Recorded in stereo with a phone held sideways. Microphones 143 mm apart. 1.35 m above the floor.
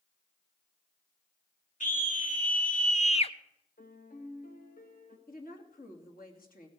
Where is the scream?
65° left (ahead or behind), 2.0 m; by 3.4 s 35° left (ahead or behind), 0.9 m.